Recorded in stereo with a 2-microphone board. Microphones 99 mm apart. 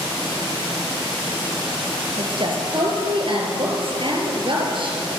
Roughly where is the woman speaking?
Right.